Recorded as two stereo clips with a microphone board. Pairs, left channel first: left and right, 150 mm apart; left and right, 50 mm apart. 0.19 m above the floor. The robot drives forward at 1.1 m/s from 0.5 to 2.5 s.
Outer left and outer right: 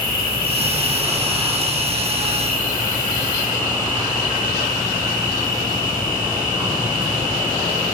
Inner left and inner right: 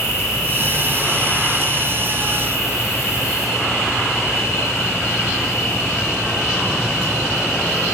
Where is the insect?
70° left (ahead or behind), 4.5 m.